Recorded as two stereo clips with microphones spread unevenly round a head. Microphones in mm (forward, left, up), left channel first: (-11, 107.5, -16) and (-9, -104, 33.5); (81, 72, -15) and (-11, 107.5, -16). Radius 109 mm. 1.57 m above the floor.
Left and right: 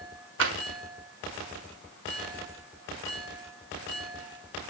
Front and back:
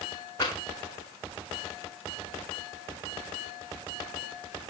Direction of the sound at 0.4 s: 90° right.